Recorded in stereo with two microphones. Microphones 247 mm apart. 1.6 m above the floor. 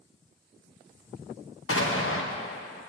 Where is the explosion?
60° left (ahead or behind), 0.9 m.